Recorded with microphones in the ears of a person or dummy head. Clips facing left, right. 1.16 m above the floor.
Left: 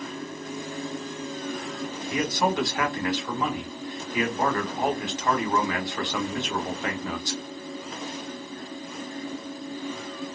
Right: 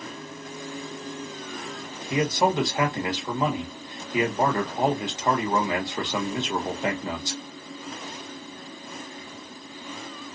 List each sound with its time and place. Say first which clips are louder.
2.1 s a man speaking: right 3 dB; 15° right (ahead or behind), 0.8 m